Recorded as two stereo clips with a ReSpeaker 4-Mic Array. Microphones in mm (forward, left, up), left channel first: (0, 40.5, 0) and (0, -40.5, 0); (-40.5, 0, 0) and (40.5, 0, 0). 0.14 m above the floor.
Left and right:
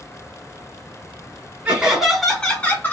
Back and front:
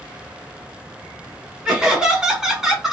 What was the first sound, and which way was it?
Laughter, 55° right.